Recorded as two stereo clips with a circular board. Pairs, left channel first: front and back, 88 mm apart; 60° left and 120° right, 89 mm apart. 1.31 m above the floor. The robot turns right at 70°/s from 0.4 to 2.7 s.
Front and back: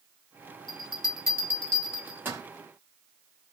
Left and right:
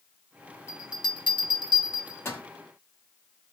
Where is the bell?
10° left, 1.1 m; by 2.4 s 130° left, 1.1 m.